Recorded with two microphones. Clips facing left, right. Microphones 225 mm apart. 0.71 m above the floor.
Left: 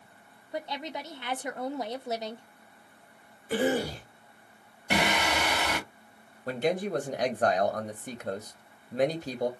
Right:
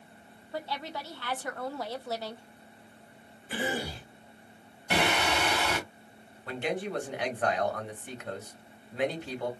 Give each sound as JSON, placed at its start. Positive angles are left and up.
{"t": 0.5, "sound": "a woman speaking", "side_deg": 20, "distance_m": 0.5}
{"t": 3.5, "sound": "a cough", "side_deg": 40, "distance_m": 2.5}
{"t": 4.9, "sound": "singing", "side_deg": 20, "distance_m": 2.5}
{"t": 6.5, "sound": "a man speaking", "side_deg": 40, "distance_m": 0.9}